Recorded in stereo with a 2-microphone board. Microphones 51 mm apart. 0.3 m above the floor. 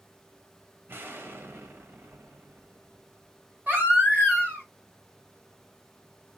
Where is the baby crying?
40° right (ahead or behind), 1.5 m.